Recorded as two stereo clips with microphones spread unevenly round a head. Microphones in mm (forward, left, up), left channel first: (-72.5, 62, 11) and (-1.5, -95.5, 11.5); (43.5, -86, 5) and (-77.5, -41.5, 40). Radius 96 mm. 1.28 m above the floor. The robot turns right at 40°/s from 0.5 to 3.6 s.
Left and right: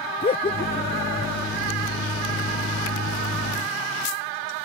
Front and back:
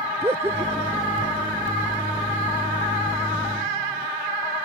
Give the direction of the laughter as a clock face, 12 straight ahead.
9 o'clock.